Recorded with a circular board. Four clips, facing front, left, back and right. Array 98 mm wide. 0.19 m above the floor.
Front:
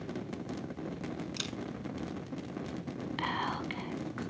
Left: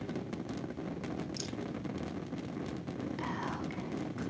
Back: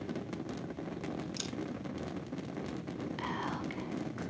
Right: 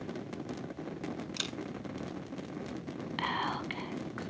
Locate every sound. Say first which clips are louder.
1.4 s a camera shutter: even, even; 60° right, 0.8 m
3.2 s whispering: right 7 dB, front 4 dB; 55° right, 1.7 m